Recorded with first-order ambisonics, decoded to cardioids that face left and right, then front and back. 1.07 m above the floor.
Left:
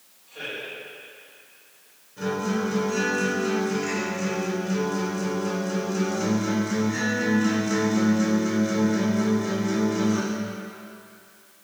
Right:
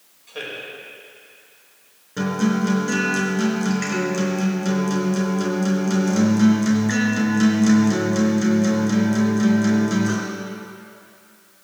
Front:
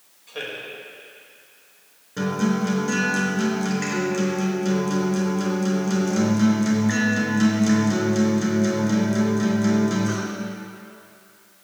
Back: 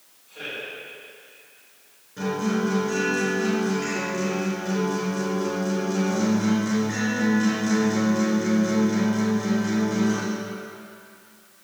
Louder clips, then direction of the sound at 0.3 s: Right 2 dB, front 2 dB; 40° right.